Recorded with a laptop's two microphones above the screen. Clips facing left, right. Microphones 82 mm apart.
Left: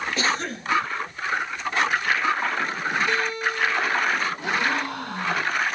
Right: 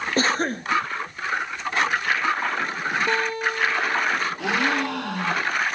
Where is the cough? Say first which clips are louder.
Right 6 dB; 40° right (ahead or behind), 1.2 m.